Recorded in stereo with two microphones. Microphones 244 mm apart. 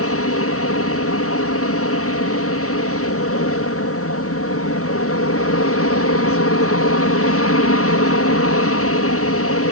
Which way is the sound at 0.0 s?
65° left (ahead or behind).